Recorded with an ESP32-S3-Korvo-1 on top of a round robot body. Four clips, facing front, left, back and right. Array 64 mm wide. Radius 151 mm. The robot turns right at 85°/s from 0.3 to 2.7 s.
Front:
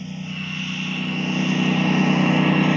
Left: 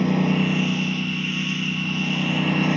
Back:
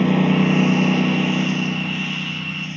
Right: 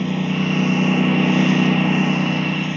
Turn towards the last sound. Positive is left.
turn(degrees=15)